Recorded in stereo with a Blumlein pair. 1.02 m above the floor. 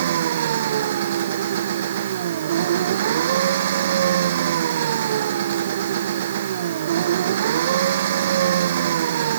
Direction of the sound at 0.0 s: 60° right.